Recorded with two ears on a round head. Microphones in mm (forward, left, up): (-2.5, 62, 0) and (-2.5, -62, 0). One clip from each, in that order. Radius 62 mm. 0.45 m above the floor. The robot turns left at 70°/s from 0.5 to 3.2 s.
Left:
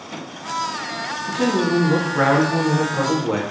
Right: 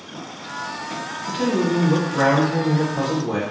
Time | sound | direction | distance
1.3 | a man speaking | 135° right | 1.0 m